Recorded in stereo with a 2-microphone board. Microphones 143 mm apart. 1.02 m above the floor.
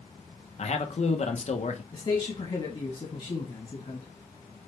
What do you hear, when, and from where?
0.6 s a man speaking: 50° left (ahead or behind), 0.9 m
1.9 s a man speaking: 35° left (ahead or behind), 1.5 m